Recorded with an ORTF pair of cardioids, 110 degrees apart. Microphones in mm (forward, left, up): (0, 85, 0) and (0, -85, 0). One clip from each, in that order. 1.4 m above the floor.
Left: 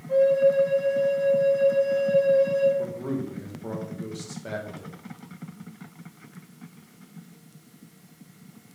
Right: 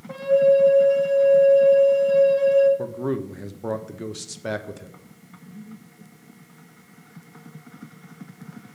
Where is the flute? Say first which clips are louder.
Right 2 dB; 35° right, 1.7 m.